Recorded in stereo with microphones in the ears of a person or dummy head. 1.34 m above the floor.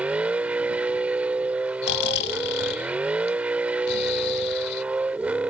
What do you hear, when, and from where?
0.0 s a vehicle: 5° right (ahead or behind)
1.8 s snoring: 60° left (ahead or behind)